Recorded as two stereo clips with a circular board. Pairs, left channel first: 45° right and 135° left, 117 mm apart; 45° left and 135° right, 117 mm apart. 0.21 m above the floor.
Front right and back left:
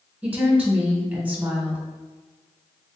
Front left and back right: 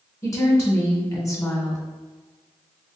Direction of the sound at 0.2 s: 75° left.